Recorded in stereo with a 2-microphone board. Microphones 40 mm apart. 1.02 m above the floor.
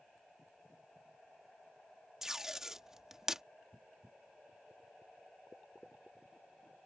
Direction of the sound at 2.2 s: 15° right (ahead or behind).